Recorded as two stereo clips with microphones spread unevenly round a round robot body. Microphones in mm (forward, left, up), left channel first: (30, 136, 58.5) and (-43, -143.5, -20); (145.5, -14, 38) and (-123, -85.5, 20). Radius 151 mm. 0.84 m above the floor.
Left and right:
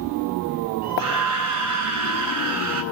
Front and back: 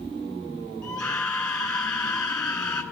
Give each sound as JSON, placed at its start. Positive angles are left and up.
{"t": 0.8, "sound": "a scream", "azimuth_deg": -70, "distance_m": 9.0}